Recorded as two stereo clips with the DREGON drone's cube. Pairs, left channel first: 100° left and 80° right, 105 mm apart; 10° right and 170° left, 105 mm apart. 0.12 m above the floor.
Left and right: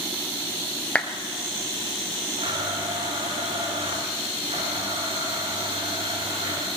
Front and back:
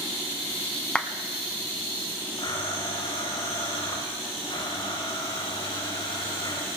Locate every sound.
0.9 s a clap: 50° left, 0.8 m
2.4 s a blender: 50° right, 4.5 m